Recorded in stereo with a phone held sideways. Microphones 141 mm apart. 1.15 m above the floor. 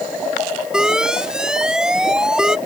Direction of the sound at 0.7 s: 5° right (ahead or behind).